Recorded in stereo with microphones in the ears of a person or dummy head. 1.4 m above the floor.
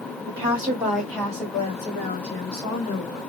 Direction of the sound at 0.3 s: 35° right (ahead or behind).